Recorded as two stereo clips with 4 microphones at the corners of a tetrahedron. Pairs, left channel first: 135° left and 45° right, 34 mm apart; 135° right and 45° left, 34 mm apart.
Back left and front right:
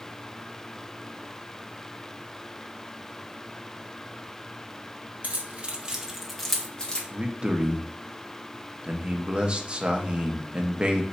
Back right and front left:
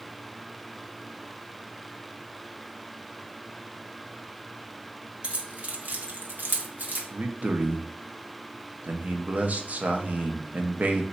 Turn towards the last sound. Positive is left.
turn(degrees=10)